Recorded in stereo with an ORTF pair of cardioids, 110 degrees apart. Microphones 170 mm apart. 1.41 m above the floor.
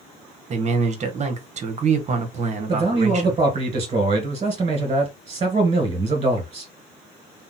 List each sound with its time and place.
0.5 s a man speaking: 40° right, 0.9 m
2.7 s a man speaking: 35° right, 1.7 m